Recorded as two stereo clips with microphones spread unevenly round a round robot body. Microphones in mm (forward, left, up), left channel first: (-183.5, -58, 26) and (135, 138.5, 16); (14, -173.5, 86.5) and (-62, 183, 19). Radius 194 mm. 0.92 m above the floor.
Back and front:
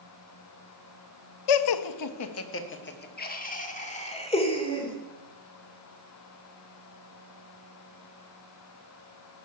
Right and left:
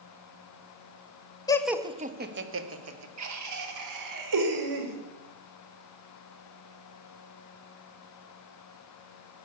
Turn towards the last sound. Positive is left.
turn(degrees=135)